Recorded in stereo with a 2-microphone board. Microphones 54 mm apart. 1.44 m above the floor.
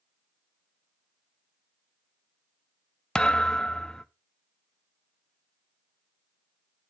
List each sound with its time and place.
3.1 s a thud: 15° left (ahead or behind), 0.8 m